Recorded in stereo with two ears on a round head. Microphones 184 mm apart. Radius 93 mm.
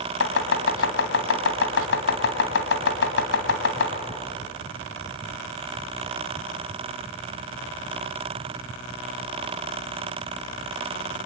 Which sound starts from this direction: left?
Chopping, at 0.2 s.